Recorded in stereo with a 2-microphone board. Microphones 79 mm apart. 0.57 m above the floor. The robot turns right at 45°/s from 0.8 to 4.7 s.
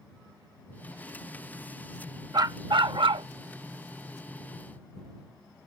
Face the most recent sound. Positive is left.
turn(degrees=-20)